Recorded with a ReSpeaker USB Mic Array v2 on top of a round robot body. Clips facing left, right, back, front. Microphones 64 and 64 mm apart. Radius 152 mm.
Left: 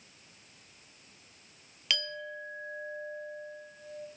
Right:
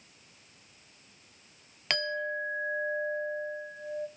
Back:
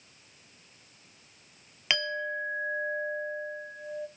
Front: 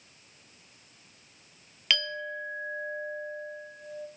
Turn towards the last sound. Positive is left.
turn(degrees=-115)